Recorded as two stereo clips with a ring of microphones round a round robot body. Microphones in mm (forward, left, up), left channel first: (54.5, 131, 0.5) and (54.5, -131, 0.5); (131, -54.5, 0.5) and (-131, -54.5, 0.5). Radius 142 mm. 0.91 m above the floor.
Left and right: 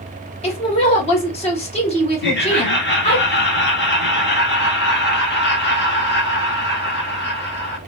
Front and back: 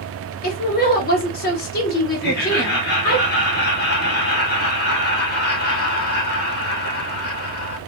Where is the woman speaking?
35° left, 0.8 m.